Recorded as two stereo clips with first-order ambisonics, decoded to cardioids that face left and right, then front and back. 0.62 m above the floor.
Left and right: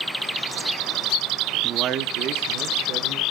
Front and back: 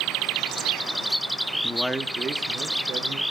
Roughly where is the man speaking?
Ahead right.